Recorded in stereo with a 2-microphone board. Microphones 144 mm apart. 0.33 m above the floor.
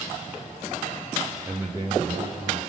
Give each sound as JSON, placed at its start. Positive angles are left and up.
{"t": 1.4, "sound": "a man speaking", "side_deg": -15, "distance_m": 1.0}